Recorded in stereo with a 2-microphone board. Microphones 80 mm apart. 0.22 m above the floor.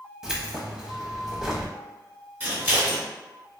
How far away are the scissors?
About 1.3 m.